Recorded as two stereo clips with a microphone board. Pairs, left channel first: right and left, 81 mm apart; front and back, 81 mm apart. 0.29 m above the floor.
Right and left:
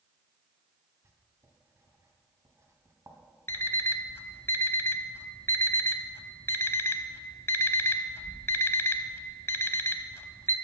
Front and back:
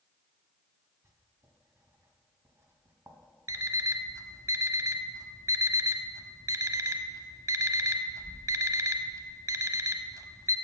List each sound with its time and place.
1.0 s writing: 135° left, 1.6 m
3.5 s an alarm clock: 145° right, 0.6 m